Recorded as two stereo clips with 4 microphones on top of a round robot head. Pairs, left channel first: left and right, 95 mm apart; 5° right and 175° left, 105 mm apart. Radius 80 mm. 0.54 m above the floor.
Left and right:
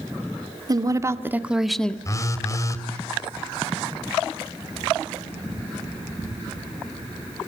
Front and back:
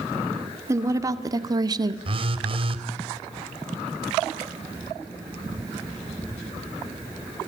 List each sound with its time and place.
0.7 s a woman speaking: 125° right, 2.0 m; by 1.9 s 160° left, 1.5 m
2.0 s a phone buzzing: 145° left, 2.5 m